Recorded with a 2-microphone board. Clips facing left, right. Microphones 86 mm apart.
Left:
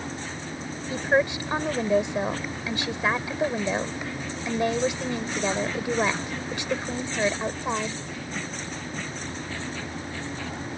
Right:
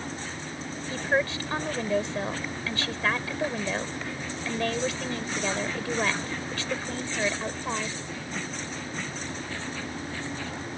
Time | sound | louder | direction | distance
0.9 | a woman speaking | left 4 dB | 15° left (ahead or behind) | ?